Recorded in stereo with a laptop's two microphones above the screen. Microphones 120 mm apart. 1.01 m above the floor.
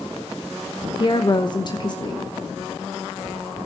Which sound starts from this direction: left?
A woman speaking, at 1.0 s.